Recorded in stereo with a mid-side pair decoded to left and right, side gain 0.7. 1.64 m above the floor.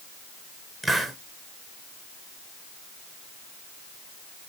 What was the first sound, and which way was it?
A hiss, straight ahead.